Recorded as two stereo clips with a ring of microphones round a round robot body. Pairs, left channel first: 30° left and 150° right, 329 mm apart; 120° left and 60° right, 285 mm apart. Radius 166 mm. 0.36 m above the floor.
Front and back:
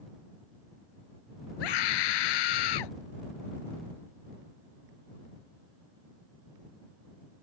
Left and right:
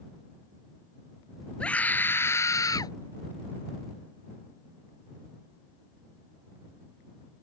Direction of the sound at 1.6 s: 35° left.